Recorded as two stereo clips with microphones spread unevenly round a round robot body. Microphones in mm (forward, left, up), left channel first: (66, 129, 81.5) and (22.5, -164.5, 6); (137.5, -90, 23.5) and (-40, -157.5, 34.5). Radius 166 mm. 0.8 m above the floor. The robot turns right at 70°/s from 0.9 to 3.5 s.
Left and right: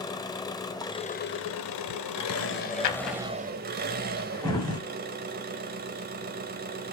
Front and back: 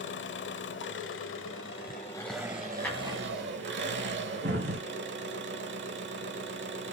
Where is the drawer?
105° left, 1.3 m; by 4.8 s 155° left, 1.3 m.